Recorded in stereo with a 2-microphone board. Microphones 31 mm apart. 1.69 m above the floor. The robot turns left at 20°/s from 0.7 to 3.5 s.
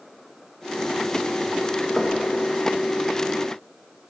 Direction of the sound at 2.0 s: 20° right (ahead or behind).